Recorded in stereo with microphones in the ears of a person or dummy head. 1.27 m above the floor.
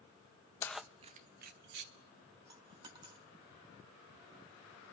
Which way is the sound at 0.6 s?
15° left (ahead or behind).